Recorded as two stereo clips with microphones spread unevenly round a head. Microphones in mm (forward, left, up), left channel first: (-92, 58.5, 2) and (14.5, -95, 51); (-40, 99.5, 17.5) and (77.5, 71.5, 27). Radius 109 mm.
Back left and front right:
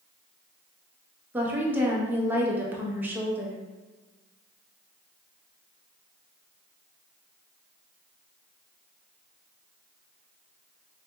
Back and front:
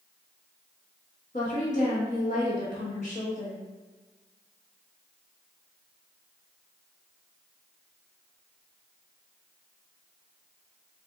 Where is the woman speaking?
135° right, 0.9 m.